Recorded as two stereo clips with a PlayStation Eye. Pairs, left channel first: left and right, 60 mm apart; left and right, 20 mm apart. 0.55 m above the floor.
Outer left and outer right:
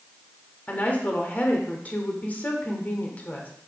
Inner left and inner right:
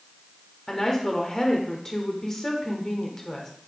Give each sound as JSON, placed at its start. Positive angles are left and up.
{"t": 0.7, "sound": "a woman speaking", "side_deg": 25, "distance_m": 1.4}